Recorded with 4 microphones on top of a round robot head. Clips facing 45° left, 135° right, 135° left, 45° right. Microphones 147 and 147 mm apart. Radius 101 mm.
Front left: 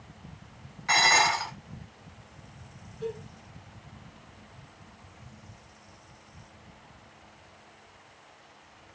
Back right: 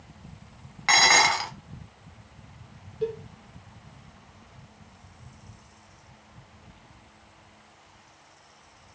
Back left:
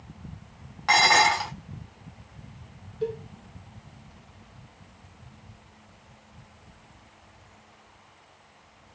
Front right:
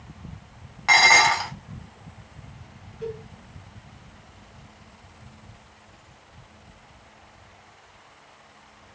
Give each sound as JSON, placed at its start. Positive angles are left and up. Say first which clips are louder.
{"t": 0.9, "sound": "dishes clattering", "louder": "back right 2 dB, front right 1 dB", "azimuth_deg": -130, "distance_m": 0.7}
{"t": 3.0, "sound": "a cowbell", "louder": "back right 5 dB, back left 3 dB", "azimuth_deg": -170, "distance_m": 0.8}